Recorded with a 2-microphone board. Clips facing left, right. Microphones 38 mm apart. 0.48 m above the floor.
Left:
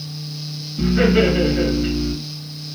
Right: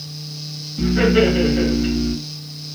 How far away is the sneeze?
I don't hear a sneeze.